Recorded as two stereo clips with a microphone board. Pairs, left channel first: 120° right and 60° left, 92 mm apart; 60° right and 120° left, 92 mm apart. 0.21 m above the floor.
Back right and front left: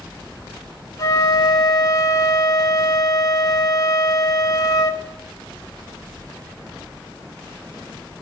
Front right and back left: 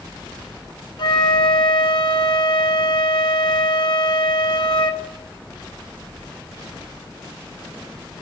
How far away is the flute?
About 0.8 m.